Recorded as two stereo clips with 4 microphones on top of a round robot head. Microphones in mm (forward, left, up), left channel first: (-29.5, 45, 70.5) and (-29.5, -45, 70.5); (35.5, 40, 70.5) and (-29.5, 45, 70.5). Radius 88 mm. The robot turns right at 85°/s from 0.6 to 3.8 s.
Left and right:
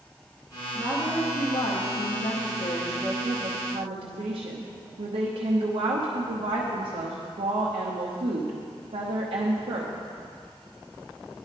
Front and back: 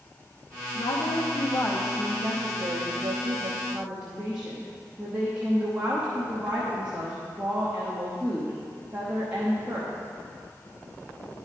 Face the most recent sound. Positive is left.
turn(degrees=-110)